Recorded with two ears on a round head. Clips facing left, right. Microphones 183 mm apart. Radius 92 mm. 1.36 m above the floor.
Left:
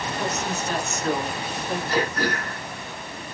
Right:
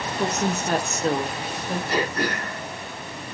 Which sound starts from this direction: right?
A woman speaking, at 0.2 s.